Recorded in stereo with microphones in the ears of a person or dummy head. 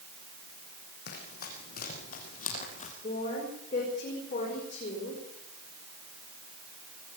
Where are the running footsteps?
50° left (ahead or behind), 5 m; by 2.9 s 40° left (ahead or behind), 4 m.